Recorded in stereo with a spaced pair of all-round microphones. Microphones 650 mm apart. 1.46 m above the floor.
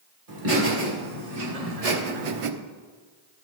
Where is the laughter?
80° right, 2.5 m; by 2.5 s 55° right (ahead or behind), 0.6 m.